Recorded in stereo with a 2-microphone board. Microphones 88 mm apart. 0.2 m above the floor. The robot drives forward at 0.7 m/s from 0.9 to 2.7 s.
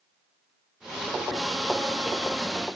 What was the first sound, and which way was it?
Only background noise.